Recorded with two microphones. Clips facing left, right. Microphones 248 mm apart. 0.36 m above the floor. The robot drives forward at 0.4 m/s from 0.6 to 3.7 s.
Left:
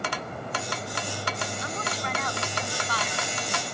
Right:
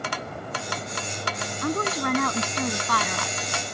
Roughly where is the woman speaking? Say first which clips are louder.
Right 8 dB; right.